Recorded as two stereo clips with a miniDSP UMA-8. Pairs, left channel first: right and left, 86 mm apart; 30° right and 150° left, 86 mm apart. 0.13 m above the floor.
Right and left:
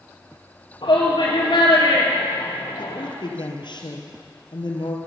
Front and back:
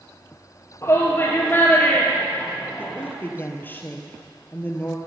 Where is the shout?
80° right, 2.5 m; by 3.1 s 120° right, 3 m.